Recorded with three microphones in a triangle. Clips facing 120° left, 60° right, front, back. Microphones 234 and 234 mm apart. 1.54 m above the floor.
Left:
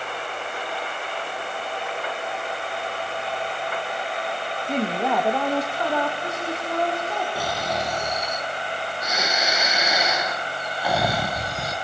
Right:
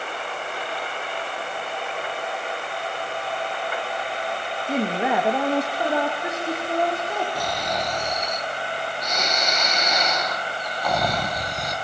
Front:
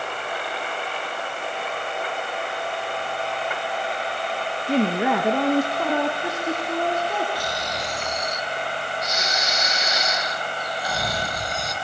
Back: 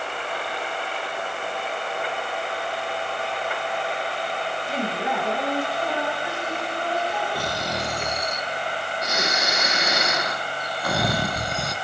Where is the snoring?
155° right, 1.8 m.